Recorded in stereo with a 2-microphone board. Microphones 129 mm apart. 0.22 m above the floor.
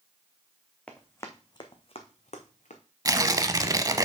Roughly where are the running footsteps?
Centre.